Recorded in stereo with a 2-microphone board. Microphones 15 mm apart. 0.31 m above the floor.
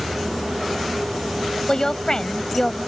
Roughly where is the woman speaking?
Left.